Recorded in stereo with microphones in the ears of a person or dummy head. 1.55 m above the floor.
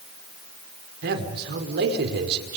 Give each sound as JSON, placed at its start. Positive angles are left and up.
{"t": 1.0, "sound": "a man speaking", "side_deg": -60, "distance_m": 5.0}